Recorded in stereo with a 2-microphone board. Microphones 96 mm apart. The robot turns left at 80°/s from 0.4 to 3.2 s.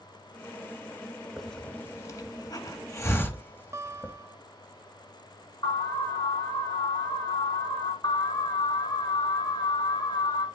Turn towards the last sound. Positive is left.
turn(degrees=50)  # may be behind; listen again after turning